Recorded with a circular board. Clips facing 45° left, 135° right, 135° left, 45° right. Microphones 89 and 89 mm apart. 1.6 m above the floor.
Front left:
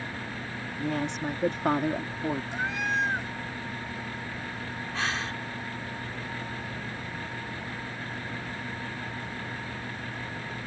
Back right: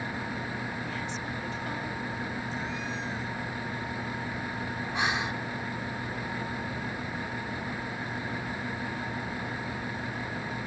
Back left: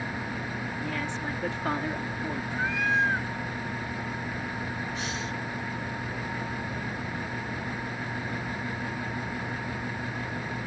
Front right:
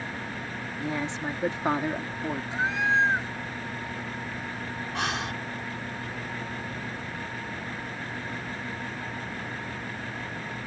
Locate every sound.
0.8 s a woman speaking: 20° left; by 2.4 s 30° left
2.5 s a cat meowing: 25° left
4.9 s breathing: 60° right